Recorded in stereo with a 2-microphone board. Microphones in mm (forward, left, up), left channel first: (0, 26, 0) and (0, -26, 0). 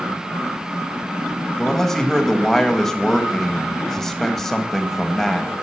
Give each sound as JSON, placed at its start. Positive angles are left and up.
{"t": 1.6, "sound": "a man speaking", "side_deg": 5, "distance_m": 1.0}